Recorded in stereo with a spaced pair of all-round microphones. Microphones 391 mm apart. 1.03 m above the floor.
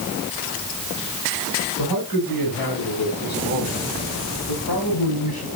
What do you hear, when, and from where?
1.8 s a man speaking: 55° left (ahead or behind), 10 m; by 5.5 s 70° left (ahead or behind), 8.5 m